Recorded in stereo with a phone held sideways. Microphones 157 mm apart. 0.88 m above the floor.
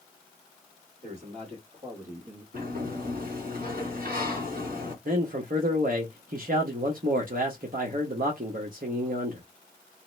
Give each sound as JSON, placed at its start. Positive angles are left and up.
{"t": 1.0, "sound": "a man speaking", "side_deg": -35, "distance_m": 1.8}
{"t": 2.5, "sound": "a sliding door", "side_deg": -65, "distance_m": 1.8}
{"t": 5.0, "sound": "a man speaking", "side_deg": -65, "distance_m": 0.8}